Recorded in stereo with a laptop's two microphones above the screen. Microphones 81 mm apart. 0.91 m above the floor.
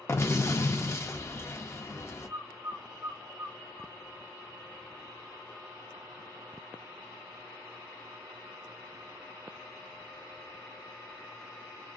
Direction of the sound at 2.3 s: 65° right (ahead or behind).